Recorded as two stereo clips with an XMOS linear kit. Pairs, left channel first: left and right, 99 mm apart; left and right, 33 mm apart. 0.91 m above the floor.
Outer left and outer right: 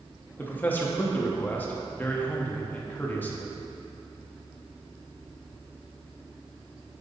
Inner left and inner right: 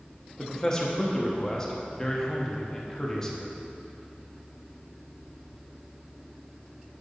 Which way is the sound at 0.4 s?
20° left (ahead or behind).